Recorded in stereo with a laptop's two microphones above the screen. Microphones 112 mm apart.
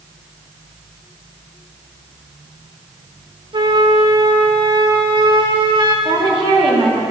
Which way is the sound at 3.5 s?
50° right (ahead or behind).